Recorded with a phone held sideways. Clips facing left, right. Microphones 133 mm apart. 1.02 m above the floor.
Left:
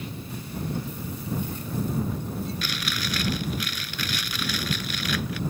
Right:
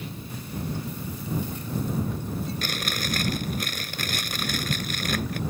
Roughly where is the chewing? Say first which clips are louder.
Right 1 dB; right.